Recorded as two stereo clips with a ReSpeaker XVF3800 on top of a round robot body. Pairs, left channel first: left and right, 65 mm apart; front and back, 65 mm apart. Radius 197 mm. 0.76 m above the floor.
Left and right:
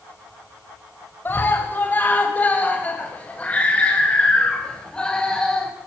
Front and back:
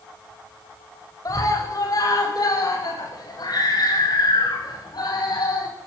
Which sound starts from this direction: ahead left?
A scream, at 1.2 s.